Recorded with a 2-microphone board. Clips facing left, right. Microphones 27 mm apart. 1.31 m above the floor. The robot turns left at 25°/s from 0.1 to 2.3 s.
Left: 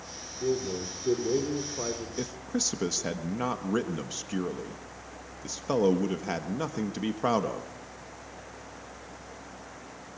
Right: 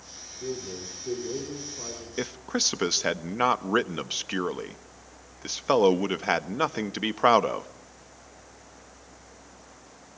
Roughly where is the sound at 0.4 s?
Behind.